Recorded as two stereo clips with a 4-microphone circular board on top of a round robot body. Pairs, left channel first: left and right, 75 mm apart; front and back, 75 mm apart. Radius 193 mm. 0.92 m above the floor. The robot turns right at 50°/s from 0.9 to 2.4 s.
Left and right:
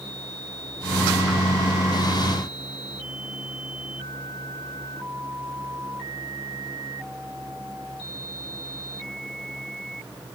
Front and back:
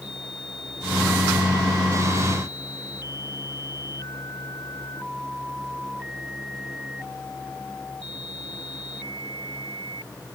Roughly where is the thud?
I don't hear a thud.